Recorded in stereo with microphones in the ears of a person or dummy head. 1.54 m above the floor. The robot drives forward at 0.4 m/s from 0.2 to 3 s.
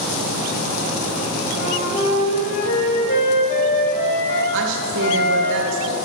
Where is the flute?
45° left (ahead or behind), 1.8 m; by 5.5 s 55° left (ahead or behind), 1.4 m.